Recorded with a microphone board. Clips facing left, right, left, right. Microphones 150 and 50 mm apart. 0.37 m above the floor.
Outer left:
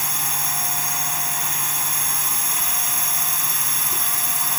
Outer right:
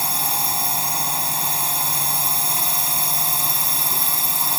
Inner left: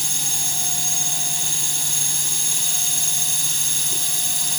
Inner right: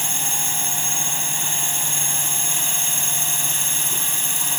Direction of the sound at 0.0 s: 30° right (ahead or behind).